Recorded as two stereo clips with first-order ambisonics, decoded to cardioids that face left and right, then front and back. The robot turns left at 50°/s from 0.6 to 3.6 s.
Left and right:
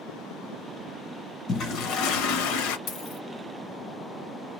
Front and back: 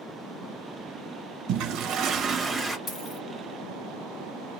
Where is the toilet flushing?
150° left, 0.8 m; by 2.8 s 85° left, 0.8 m.